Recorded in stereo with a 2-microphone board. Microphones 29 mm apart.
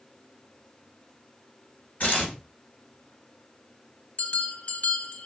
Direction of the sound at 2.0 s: 65° left (ahead or behind).